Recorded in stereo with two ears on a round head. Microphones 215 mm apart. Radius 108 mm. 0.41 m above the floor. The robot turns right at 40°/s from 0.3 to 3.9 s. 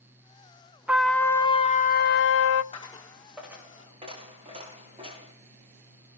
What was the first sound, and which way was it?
A trumpet, 5° right.